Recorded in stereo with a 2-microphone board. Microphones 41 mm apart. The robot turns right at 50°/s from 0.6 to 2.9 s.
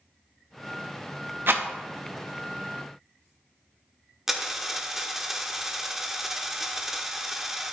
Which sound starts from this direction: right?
A rattle, at 1.5 s.